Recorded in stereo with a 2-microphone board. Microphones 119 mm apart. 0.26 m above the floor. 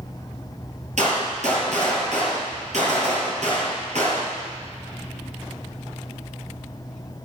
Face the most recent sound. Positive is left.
turn(degrees=-70)  # may be behind; listen again after turning